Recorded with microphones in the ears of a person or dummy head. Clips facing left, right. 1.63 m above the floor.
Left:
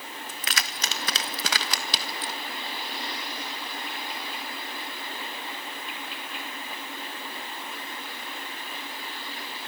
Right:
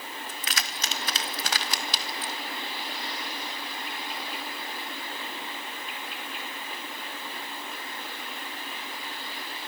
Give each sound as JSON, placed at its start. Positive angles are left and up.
{"t": 0.3, "sound": "keys jangling", "side_deg": 45, "distance_m": 1.2}